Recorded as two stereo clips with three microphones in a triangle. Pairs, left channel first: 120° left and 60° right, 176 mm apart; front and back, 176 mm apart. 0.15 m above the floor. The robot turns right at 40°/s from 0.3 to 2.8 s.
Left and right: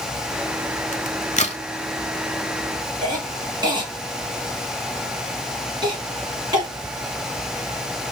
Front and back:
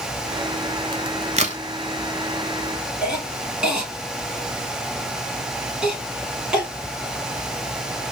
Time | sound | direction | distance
0.9 | a crack | 130° left | 0.6 m
3.0 | a cough | 100° right | 1.2 m